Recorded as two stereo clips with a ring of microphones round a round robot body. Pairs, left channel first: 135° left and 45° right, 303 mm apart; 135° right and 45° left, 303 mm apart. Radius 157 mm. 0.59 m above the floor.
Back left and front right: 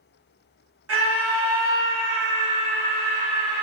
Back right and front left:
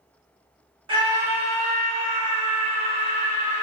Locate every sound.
0.9 s a scream: 25° right, 1.3 m; by 3.6 s 105° right, 1.5 m